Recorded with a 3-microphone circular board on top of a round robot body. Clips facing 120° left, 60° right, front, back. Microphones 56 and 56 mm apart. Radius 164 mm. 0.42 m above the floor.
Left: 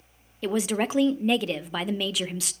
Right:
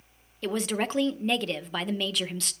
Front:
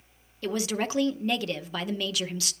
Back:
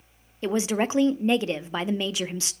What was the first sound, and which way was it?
A woman speaking, 165° right.